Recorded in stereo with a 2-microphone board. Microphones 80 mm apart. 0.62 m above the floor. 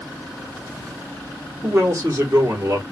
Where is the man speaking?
40° right (ahead or behind), 1.2 m.